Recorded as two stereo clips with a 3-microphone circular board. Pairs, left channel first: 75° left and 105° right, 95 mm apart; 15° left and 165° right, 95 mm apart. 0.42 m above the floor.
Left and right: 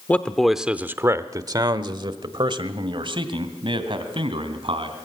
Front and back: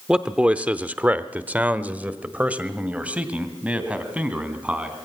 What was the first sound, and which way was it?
A man speaking, 125° left.